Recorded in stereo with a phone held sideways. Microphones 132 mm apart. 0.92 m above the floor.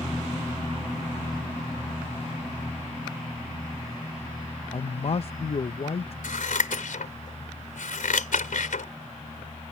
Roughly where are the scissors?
Left.